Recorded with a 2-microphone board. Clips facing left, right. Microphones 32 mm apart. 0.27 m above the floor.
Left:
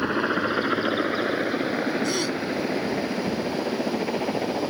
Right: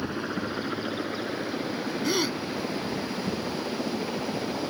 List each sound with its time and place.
0.0 s a helicopter: 40° left (ahead or behind); by 4.7 s 30° left (ahead or behind)
2.0 s a gasp: 15° right (ahead or behind)